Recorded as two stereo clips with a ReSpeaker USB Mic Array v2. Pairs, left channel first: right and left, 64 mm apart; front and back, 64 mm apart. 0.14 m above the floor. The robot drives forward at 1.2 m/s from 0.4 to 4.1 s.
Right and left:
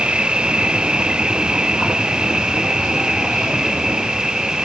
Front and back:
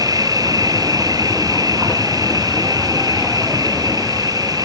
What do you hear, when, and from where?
0.0 s an insect: 165° left; by 4.7 s 170° left